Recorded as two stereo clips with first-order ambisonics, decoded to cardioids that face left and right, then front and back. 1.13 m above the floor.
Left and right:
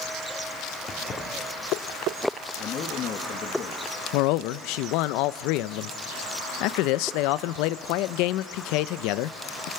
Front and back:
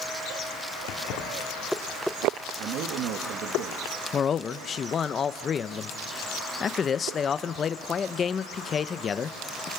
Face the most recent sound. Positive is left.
turn(degrees=65)